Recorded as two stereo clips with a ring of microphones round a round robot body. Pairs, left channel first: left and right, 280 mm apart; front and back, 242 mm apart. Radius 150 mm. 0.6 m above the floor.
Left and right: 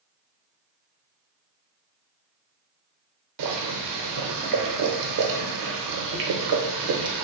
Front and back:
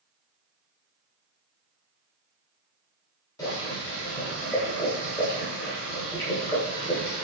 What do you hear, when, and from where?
3.4 s boiling: 75° right, 0.7 m